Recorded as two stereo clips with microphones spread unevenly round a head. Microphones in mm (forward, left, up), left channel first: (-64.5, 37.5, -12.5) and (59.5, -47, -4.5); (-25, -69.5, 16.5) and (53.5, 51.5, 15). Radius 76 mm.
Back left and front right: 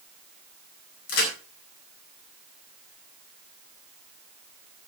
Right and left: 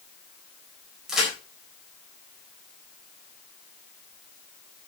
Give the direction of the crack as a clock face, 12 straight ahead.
7 o'clock.